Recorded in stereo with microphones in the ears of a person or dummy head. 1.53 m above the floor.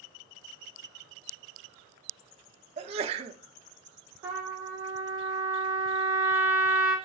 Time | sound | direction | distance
2.8 | a sneeze | 35° right (ahead or behind) | 0.5 m
4.2 | a trumpet | 15° right (ahead or behind) | 0.9 m